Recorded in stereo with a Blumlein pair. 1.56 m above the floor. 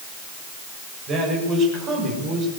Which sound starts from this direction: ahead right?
A man speaking, at 1.1 s.